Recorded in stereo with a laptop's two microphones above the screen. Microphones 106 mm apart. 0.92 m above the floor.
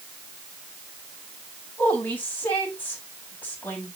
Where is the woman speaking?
15° left (ahead or behind), 5.5 m.